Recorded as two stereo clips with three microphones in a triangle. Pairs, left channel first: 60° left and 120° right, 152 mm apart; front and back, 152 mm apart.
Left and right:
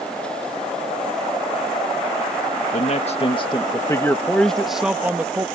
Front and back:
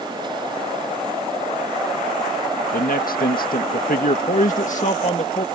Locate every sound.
2.7 s a man speaking: 20° left; by 5.5 s 50° right